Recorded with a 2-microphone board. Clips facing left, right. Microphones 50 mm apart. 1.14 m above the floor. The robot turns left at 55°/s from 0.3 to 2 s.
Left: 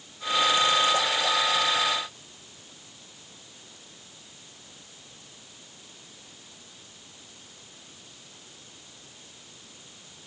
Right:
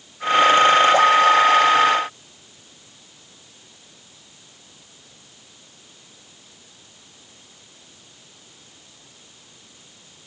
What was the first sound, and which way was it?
Only background noise.